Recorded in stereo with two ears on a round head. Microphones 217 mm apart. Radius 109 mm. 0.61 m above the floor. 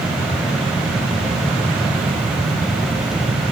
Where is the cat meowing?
No cat meowing in this recording.